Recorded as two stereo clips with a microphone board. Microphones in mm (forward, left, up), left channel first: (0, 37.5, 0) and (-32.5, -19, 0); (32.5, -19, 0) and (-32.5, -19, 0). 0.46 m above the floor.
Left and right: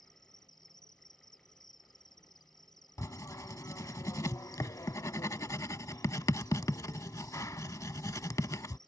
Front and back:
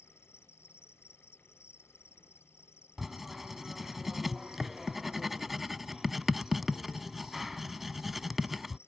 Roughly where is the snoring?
No snoring in this recording.